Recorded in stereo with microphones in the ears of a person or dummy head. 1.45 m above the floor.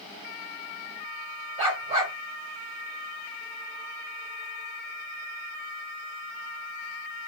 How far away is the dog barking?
About 1.8 m.